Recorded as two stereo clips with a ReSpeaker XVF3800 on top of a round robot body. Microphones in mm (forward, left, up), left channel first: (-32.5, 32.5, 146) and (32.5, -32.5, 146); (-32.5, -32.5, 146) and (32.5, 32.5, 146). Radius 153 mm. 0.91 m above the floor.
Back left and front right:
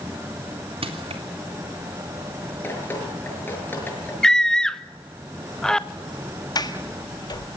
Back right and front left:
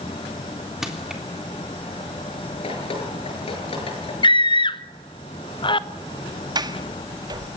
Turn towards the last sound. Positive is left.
turn(degrees=90)